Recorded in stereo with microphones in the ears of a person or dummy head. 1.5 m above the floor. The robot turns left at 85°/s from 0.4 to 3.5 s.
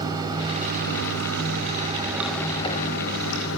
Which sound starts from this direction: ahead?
Running water, at 0.0 s.